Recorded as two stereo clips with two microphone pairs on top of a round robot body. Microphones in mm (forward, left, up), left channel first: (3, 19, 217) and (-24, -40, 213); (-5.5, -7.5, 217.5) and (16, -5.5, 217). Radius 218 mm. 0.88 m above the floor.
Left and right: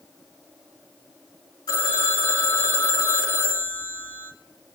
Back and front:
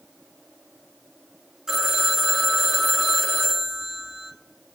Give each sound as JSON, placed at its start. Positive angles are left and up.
{"t": 1.7, "sound": "a phone ringing", "azimuth_deg": 70, "distance_m": 1.6}